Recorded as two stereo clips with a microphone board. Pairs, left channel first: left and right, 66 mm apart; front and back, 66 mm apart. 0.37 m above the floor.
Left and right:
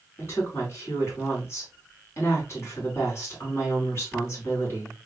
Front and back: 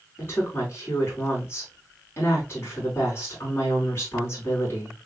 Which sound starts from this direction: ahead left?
A woman speaking, at 0.2 s.